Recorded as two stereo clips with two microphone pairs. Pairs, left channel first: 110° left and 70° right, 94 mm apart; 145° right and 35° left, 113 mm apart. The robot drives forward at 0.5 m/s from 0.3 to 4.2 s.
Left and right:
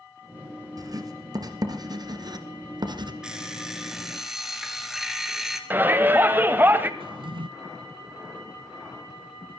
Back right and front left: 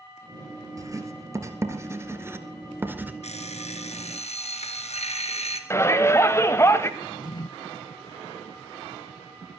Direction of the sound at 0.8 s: 25° right.